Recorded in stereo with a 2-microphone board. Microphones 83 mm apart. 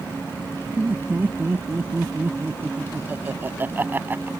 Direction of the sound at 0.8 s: 25° right (ahead or behind).